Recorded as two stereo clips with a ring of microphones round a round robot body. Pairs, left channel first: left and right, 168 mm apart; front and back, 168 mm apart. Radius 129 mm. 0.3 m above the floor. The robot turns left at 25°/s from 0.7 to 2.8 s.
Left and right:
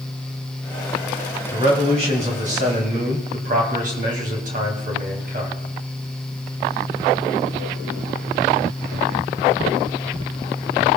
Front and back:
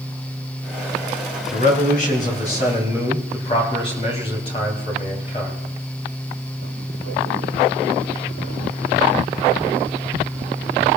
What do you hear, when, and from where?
1.5 s a man speaking: 25° right, 3 m; by 5.6 s 55° right, 3 m